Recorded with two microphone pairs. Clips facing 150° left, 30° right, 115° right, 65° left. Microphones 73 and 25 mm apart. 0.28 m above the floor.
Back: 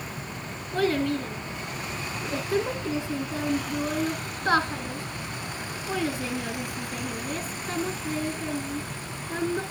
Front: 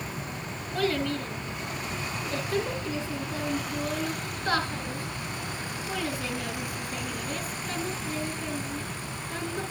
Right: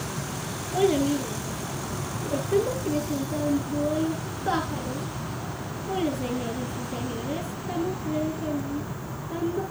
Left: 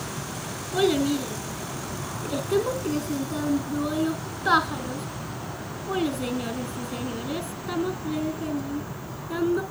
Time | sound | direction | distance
0.7 | a child speaking | 80° left | 2.5 m